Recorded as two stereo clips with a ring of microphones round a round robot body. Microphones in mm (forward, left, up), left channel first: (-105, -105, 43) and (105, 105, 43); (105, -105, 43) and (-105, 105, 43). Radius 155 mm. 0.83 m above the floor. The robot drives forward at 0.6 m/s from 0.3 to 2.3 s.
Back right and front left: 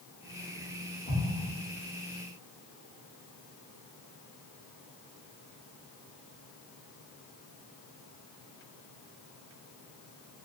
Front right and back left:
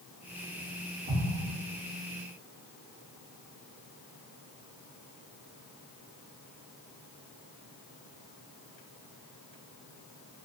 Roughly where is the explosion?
Behind.